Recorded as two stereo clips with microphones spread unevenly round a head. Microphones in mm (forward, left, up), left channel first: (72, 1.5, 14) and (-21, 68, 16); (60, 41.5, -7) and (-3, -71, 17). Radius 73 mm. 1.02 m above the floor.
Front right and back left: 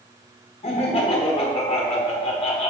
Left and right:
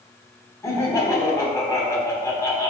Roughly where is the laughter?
Ahead.